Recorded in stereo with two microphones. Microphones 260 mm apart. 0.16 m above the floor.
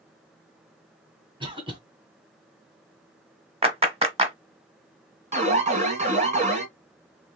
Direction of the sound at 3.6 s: 25° right (ahead or behind).